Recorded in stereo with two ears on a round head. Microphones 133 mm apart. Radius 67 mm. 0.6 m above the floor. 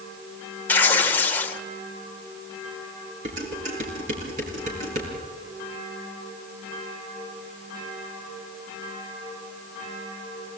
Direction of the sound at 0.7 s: 10° left (ahead or behind).